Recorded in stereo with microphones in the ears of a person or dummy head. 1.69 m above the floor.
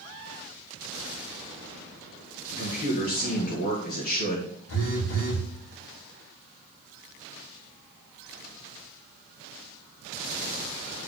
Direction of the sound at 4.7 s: 75° left (ahead or behind).